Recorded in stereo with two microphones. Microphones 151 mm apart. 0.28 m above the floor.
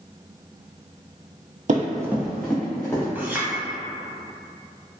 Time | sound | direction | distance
1.7 | running footsteps | 60° right (ahead or behind) | 0.5 m
3.1 | a clink | 15° right (ahead or behind) | 0.8 m